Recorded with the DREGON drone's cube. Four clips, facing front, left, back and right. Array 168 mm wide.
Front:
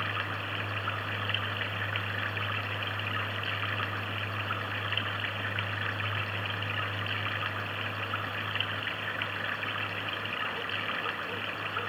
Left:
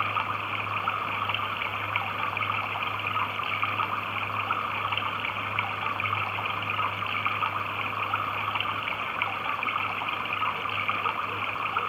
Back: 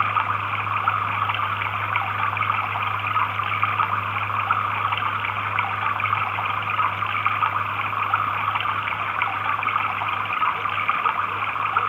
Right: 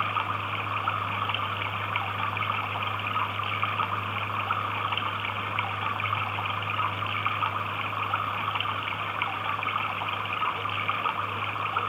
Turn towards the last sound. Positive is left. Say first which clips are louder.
# even, back 13 dB
turn(degrees=-175)